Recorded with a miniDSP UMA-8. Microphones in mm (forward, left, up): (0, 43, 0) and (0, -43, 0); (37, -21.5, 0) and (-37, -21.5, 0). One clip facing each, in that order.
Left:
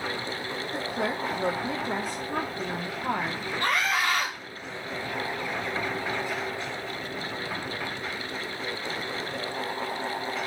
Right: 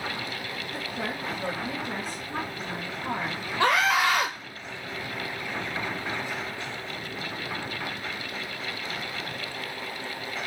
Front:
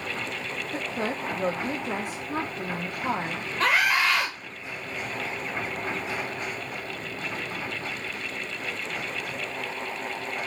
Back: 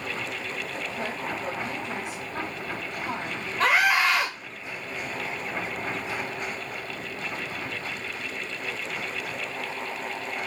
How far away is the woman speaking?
About 0.5 m.